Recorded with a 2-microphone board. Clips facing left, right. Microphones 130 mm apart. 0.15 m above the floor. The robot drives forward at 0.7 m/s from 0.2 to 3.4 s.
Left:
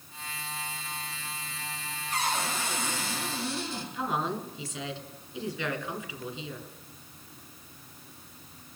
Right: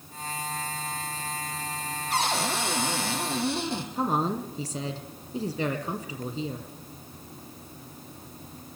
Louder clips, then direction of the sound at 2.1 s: Right 3 dB; 80° right.